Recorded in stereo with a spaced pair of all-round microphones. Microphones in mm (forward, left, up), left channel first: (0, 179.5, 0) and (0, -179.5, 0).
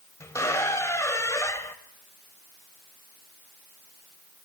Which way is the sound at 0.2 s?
10° left (ahead or behind).